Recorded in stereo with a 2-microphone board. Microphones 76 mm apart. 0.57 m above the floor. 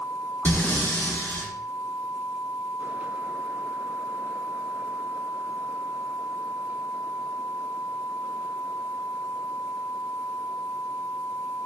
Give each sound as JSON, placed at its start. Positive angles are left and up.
{"t": 0.5, "sound": "breathing", "side_deg": 25, "distance_m": 0.6}